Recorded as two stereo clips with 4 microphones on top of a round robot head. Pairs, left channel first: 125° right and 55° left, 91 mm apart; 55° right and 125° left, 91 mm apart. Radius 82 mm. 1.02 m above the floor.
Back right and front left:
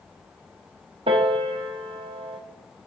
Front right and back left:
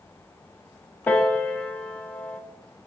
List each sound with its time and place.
1.1 s a piano: 20° left, 0.8 m